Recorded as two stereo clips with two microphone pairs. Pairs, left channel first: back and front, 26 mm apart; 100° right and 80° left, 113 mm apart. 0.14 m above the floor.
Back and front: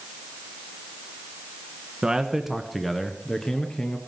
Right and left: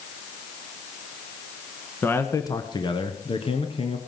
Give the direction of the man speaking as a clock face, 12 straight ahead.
1 o'clock.